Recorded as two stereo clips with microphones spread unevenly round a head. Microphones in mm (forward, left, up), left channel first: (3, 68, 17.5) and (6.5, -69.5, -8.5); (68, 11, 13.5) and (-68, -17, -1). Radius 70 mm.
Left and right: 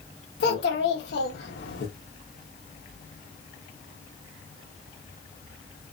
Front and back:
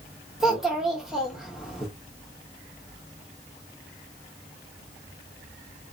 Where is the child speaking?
105° left, 1.0 m.